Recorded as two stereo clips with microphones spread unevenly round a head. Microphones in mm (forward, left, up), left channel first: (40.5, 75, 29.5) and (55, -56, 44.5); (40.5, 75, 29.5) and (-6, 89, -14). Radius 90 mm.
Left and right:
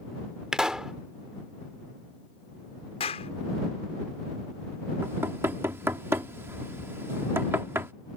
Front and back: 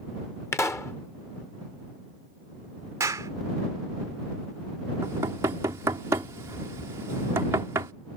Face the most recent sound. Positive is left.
turn(degrees=-160)